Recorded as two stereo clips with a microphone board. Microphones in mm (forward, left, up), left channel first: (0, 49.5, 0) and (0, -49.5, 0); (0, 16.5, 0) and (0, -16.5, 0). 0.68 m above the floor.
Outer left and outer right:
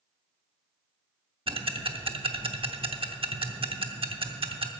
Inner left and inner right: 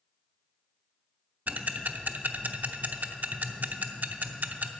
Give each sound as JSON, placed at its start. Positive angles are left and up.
{"t": 1.5, "sound": "ticking", "side_deg": -65, "distance_m": 0.7}